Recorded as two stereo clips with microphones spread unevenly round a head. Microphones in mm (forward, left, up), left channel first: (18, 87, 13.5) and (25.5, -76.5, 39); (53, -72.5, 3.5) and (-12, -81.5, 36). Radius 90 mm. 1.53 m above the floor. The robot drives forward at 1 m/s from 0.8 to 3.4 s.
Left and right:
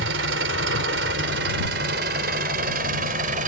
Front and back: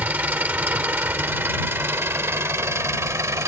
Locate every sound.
0.0 s an engine running: 115° right; by 3.5 s 135° right